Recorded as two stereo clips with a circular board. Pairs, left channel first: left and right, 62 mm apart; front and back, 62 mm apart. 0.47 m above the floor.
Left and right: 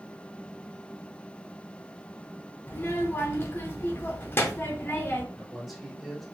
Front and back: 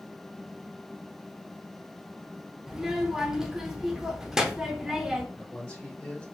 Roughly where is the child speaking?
Left.